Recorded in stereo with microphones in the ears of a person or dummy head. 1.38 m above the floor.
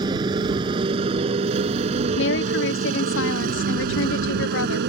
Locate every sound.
0.0 s a motorcycle: 25° right (ahead or behind); by 4.9 s 65° right (ahead or behind)
2.2 s a woman speaking: 60° left (ahead or behind)